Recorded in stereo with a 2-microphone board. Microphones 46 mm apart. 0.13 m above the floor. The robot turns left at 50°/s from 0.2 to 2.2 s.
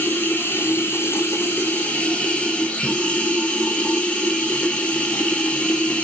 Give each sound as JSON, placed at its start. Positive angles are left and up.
{"t": 0.0, "sound": "running water", "azimuth_deg": 125, "distance_m": 1.3}